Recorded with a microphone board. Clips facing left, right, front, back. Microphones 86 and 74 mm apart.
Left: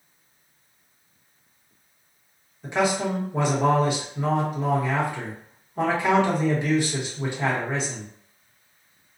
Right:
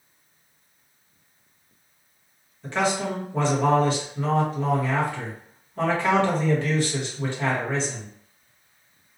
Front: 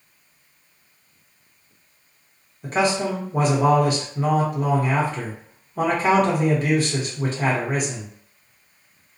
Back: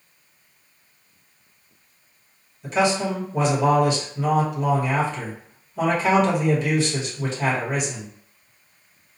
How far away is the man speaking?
About 1.0 m.